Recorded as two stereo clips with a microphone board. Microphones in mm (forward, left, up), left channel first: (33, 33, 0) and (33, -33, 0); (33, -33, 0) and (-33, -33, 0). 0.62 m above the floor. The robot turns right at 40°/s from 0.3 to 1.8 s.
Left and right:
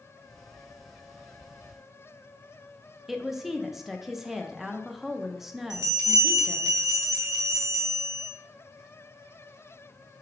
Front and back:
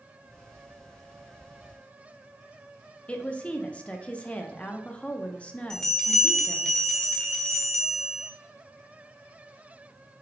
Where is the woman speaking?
15° right, 0.5 m.